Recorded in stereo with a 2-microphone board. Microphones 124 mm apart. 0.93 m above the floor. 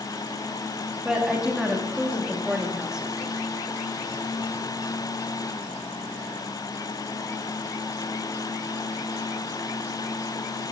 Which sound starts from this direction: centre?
A woman speaking, at 1.1 s.